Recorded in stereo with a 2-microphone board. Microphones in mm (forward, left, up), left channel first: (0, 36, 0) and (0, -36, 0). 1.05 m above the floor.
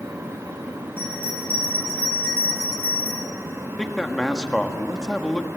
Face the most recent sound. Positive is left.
turn(degrees=10)  # may be behind; listen again after turning